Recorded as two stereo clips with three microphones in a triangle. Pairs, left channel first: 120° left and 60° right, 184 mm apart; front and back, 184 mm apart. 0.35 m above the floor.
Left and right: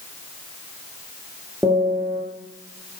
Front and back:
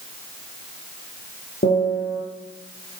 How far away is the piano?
About 6.5 m.